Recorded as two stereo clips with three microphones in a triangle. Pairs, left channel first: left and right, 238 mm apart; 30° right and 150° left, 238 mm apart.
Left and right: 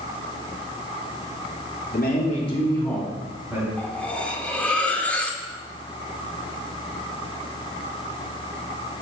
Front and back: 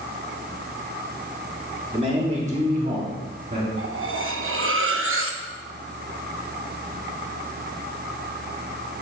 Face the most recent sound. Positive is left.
turn(degrees=175)